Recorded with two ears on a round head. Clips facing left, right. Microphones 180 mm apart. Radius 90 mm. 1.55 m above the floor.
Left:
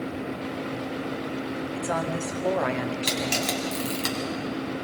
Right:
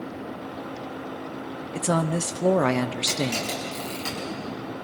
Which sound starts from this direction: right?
A woman speaking, at 1.7 s.